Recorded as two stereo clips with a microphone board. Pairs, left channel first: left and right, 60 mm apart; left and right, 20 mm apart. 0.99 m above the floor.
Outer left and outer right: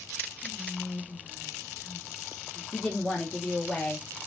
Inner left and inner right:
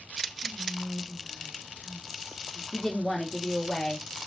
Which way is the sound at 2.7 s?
10° left (ahead or behind).